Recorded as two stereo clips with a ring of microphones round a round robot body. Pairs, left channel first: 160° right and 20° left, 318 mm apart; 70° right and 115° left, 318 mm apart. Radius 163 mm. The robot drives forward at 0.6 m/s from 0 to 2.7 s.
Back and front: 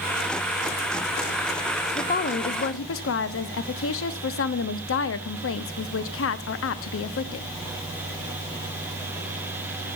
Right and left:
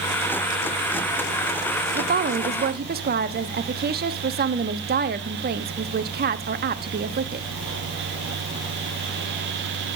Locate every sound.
1.9 s a woman speaking: 150° left, 0.7 m; by 7.5 s 165° left, 1.0 m